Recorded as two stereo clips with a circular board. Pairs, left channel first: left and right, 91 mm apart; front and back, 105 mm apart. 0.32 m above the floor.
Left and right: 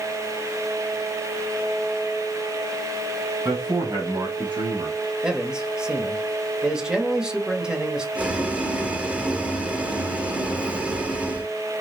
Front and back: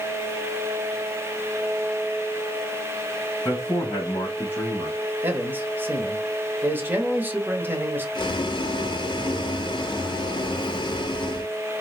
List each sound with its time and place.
3.5 s a man speaking: 50° right, 2.5 m; by 5.1 s 75° right, 2.5 m
5.2 s a man speaking: 150° right, 1.0 m
8.2 s boiling: 20° right, 0.8 m